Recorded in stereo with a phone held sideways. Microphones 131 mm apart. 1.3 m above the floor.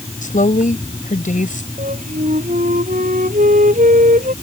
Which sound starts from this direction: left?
A woman speaking, at 0.2 s.